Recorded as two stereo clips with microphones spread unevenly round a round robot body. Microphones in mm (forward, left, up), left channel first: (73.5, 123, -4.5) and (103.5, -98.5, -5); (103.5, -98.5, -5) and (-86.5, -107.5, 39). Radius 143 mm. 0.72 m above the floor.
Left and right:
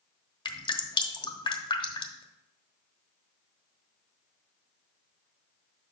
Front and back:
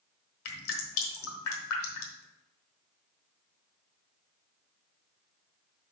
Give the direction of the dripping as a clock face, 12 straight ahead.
11 o'clock.